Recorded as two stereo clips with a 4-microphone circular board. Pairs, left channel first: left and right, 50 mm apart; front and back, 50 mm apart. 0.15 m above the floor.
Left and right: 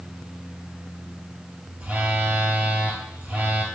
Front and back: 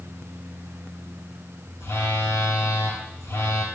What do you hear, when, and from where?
1.8 s a phone buzzing: 30° right, 0.6 m